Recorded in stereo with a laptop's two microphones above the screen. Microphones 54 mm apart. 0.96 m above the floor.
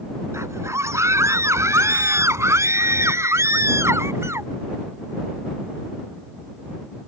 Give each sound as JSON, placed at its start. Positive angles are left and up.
{"t": 0.3, "sound": "a scream", "side_deg": -55}